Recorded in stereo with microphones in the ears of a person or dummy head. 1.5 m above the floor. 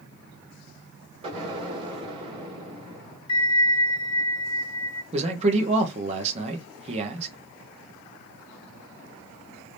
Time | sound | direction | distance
1.2 | an explosion | 30° right (ahead or behind) | 2.5 m
3.3 | a bell | 30° left (ahead or behind) | 1.2 m
5.1 | a man speaking | 35° right (ahead or behind) | 1.2 m